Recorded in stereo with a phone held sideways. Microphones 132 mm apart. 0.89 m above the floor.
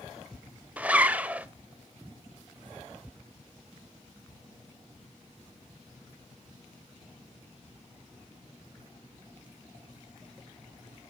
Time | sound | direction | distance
0.8 | a zipper | 10° right (ahead or behind) | 0.6 m